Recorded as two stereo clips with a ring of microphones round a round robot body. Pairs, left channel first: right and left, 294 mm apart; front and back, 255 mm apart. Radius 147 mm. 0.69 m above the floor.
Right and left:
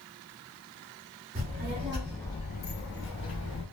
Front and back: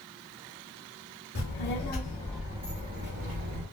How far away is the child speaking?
About 1.1 m.